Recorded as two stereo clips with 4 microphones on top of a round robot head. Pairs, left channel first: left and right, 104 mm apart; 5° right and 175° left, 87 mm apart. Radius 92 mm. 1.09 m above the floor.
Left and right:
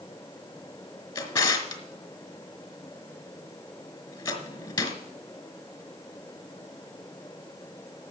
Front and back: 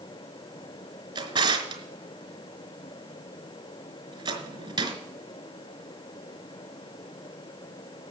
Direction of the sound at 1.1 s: 140° left.